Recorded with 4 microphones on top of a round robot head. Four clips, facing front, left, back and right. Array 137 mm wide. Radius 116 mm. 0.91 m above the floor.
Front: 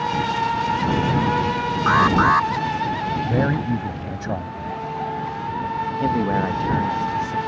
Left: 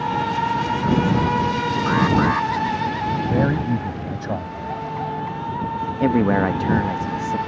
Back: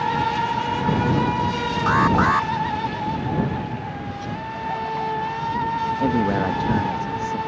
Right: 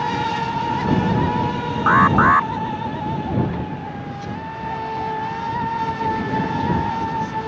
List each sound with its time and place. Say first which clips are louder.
1.9 s an alarm: right 6 dB, front 2 dB; 70° right
3.3 s a man speaking: left 3 dB, front 3 dB; 50° left
6.0 s a man speaking: left 4 dB, front 1 dB; 100° left